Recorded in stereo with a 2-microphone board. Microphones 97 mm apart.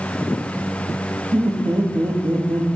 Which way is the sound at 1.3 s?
50° right (ahead or behind).